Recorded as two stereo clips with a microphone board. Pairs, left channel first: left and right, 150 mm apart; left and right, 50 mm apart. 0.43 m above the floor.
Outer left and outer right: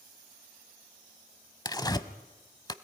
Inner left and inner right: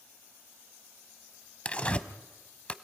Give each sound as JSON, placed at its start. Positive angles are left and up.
{"t": 1.6, "sound": "tearing paper", "side_deg": 25, "distance_m": 0.7}